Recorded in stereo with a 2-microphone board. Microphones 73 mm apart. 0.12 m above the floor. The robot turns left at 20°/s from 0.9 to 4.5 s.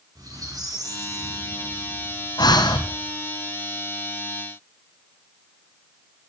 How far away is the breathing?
About 1.2 m.